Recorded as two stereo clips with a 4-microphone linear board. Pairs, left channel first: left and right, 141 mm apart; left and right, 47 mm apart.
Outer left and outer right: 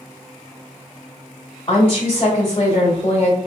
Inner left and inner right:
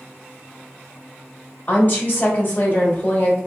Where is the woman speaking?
35° left (ahead or behind), 1.0 m.